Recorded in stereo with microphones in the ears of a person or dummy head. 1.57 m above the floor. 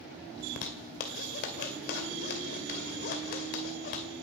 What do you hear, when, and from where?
0.4 s a zipper: 45° left (ahead or behind), 2 m